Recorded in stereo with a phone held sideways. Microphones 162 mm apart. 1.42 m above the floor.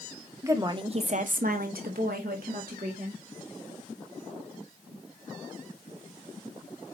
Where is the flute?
No flute in this recording.